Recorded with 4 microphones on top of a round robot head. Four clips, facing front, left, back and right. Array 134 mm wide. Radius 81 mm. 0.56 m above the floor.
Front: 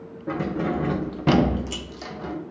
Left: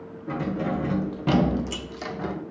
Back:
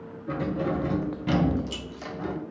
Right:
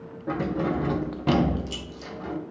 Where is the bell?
No bell in this recording.